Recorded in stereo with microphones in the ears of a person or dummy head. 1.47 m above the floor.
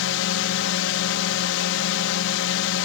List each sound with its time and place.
0.0 s a drone: 70° left (ahead or behind)